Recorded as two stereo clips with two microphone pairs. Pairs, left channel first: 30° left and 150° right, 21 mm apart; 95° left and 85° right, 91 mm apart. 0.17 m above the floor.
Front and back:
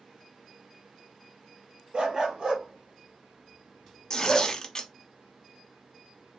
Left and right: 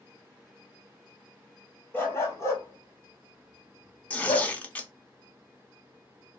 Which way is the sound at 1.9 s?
165° left.